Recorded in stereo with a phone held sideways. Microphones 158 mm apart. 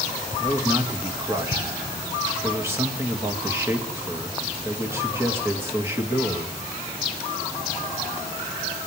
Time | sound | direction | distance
0.4 | a man speaking | 15° right (ahead or behind) | 2.5 m